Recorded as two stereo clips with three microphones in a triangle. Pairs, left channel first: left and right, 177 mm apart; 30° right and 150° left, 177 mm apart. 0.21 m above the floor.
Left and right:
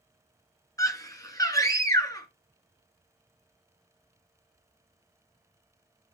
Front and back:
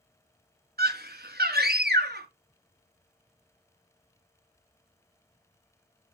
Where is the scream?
160° left, 2.5 m.